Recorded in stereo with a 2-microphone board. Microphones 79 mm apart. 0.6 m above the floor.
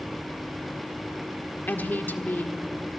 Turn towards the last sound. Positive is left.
turn(degrees=25)  # may be behind; listen again after turning